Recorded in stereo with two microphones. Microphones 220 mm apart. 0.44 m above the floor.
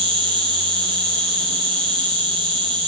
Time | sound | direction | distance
0.0 | an insect | 20° right (ahead or behind) | 2.0 m